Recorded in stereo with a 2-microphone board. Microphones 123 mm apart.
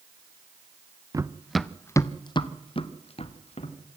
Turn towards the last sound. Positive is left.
turn(degrees=65)  # may be behind; listen again after turning